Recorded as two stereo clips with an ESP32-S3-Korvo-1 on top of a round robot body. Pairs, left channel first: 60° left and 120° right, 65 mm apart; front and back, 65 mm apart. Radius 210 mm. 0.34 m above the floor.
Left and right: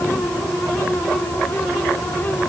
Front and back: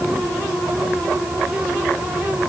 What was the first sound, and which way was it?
Only background noise.